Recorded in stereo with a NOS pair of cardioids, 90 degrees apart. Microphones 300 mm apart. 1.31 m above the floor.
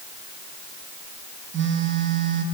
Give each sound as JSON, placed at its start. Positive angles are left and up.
{"t": 1.5, "sound": "a phone buzzing", "azimuth_deg": -40, "distance_m": 1.2}